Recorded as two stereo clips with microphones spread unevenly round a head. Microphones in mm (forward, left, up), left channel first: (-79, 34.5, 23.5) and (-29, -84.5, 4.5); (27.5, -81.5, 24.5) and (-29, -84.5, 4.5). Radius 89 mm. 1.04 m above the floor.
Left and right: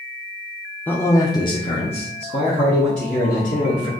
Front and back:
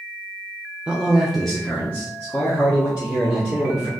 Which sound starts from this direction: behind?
A man speaking, at 0.9 s.